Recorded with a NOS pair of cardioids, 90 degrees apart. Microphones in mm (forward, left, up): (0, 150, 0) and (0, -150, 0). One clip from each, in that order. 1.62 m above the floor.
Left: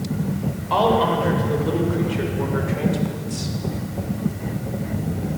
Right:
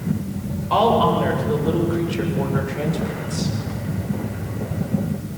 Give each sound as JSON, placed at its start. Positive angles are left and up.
{"t": 0.7, "sound": "a woman speaking", "azimuth_deg": -10, "distance_m": 7.5}